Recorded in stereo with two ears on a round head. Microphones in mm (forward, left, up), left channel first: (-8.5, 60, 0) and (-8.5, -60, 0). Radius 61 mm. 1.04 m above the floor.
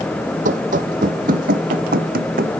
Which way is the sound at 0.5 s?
60° right (ahead or behind).